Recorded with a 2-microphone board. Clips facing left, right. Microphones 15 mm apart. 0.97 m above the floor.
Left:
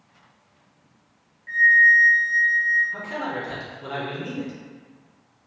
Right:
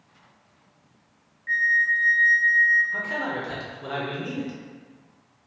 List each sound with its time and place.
1.5 s a flute: 20° right (ahead or behind), 0.7 m
2.9 s a man speaking: 10° right (ahead or behind), 0.8 m